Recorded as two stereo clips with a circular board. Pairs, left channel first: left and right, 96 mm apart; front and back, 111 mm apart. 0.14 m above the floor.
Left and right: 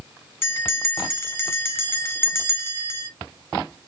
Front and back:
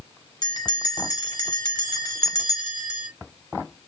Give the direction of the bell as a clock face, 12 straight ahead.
11 o'clock.